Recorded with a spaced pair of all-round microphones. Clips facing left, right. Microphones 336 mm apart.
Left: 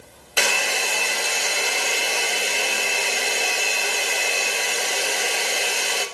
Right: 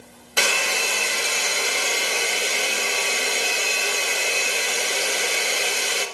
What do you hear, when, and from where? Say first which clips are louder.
0.4 s a hair dryer: even; 10° right (ahead or behind), 1.1 m